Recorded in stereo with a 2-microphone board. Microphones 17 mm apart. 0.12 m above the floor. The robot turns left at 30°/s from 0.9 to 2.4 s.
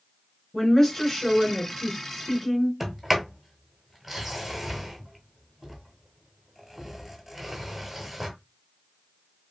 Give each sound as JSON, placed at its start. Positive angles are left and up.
{"t": 0.5, "sound": "a woman speaking", "side_deg": 10, "distance_m": 1.3}
{"t": 2.8, "sound": "a sliding door", "side_deg": -5, "distance_m": 0.8}